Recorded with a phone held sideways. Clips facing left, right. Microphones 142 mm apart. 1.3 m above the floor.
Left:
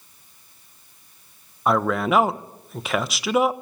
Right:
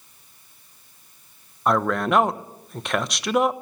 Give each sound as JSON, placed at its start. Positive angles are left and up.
{"t": 1.7, "sound": "a man speaking", "side_deg": 5, "distance_m": 1.0}